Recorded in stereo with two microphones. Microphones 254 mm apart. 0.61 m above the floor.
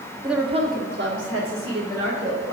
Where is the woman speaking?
Centre (ahead or behind), 0.7 m; by 2.5 s 70° right (ahead or behind), 2.5 m.